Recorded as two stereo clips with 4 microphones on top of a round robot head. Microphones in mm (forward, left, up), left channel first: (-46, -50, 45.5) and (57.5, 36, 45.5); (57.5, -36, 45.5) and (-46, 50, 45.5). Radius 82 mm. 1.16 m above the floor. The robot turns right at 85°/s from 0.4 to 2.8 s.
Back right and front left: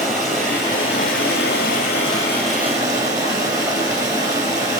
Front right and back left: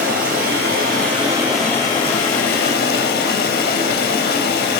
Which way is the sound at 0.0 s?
130° left.